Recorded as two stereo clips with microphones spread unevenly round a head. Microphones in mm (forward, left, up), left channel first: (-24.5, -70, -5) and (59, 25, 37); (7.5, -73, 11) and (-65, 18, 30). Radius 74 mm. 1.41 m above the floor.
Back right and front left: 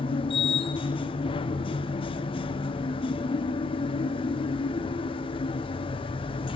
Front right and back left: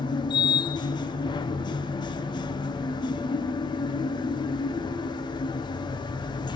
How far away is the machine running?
About 1.0 m.